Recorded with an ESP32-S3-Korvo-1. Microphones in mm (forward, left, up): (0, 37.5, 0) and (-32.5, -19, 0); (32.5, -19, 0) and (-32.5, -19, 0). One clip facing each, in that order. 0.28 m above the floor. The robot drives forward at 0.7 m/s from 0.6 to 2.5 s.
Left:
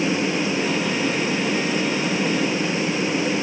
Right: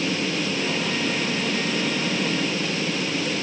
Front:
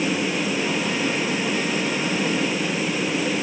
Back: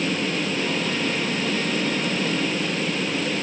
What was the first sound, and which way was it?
Only background noise.